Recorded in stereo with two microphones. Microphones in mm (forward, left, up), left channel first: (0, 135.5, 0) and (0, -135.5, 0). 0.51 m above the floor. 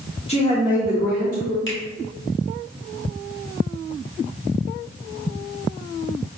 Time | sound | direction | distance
0.3 | a woman speaking | 20° left (ahead or behind) | 0.9 m
1.7 | a finger snap | 45° left (ahead or behind) | 1.2 m